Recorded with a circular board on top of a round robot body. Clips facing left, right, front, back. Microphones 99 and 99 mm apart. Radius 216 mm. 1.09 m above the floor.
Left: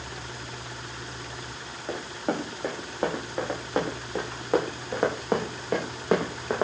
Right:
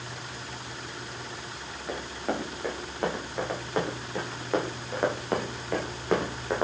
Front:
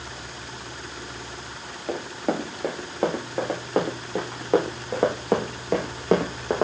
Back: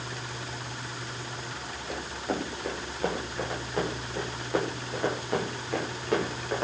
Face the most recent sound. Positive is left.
turn(degrees=10)